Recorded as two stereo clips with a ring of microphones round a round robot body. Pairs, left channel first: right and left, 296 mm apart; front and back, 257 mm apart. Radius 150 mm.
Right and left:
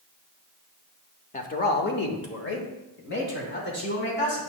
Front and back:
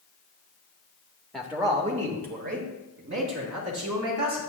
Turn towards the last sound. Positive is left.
turn(degrees=-145)